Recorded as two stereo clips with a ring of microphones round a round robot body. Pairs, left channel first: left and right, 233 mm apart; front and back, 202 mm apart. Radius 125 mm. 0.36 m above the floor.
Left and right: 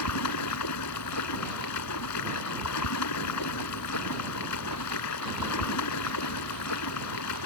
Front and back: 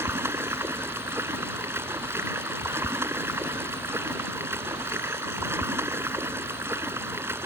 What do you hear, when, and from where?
0.0 s running water: 100° left